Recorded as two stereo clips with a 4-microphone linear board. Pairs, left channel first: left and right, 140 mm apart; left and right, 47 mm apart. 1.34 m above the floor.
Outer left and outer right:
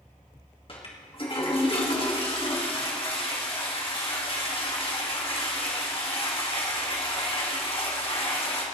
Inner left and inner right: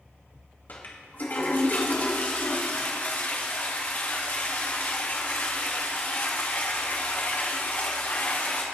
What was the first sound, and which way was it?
A toilet flushing, 40° left (ahead or behind).